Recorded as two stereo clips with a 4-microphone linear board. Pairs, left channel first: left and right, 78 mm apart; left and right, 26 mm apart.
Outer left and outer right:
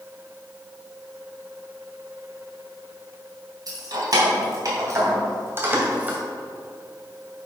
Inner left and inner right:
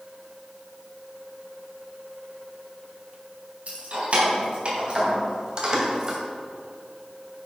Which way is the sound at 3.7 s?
55° right (ahead or behind).